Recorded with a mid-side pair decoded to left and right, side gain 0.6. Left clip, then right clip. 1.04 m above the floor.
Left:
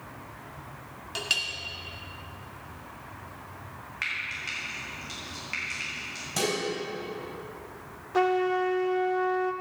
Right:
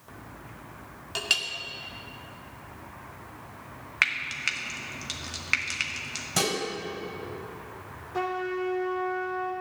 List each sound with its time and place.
1.1 s a clink: 15° right, 1.5 m
4.0 s frying: 55° right, 1.5 m
6.4 s dishes clattering: 25° right, 3.5 m
8.1 s a trumpet: 35° left, 1.4 m